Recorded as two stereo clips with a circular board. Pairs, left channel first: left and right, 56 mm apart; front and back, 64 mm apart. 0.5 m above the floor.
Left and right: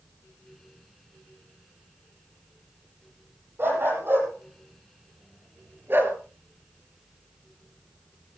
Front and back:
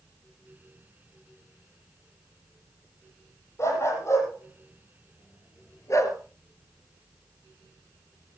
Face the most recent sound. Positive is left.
turn(degrees=-40)